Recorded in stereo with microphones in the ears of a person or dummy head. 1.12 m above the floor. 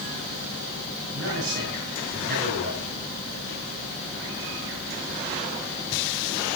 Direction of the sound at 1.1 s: 65° right (ahead or behind).